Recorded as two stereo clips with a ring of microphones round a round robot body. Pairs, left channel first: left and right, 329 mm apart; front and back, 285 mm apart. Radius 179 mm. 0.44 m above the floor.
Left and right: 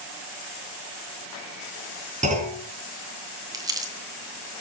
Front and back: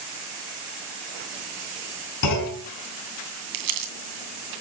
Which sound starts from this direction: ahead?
A clunk, at 2.2 s.